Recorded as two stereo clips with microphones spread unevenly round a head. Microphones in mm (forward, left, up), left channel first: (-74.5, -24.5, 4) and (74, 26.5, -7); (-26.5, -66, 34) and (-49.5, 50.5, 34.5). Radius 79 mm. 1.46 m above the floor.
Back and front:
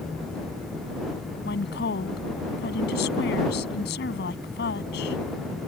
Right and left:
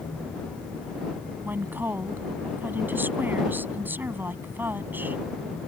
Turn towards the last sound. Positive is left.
turn(degrees=175)